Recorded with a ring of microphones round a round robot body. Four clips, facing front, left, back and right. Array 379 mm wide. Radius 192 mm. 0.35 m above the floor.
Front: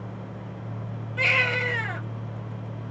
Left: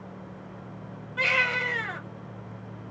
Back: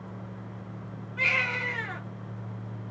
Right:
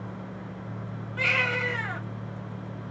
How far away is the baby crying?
About 1.6 m.